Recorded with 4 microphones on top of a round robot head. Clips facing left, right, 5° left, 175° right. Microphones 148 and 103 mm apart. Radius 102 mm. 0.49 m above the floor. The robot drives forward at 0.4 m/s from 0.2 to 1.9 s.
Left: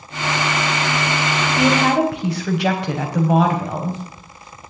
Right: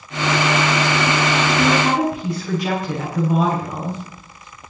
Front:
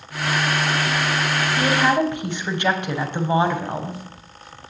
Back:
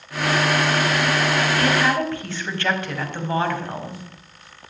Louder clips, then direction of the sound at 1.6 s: Left 4 dB, front 5 dB; 75° left.